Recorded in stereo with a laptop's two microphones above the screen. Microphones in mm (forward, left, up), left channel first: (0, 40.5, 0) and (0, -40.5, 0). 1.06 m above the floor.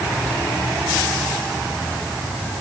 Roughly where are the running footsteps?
No running footsteps in this recording.